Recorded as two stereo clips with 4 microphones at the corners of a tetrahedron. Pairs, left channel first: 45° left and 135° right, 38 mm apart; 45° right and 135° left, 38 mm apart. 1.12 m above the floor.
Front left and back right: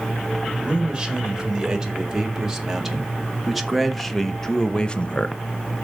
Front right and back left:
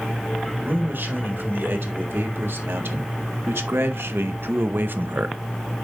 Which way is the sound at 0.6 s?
150° left.